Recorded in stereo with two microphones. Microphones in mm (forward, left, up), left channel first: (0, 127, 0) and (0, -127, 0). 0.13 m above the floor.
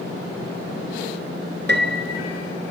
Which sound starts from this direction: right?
A piano, at 1.7 s.